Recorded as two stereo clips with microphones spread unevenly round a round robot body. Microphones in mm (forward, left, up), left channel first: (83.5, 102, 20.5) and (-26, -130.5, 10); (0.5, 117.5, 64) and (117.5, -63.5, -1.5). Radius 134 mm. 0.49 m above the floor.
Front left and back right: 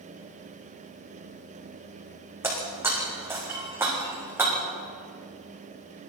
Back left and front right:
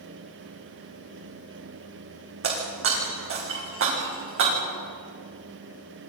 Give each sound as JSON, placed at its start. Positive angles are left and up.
{"t": 2.4, "sound": "breaking glass", "azimuth_deg": -35, "distance_m": 9.0}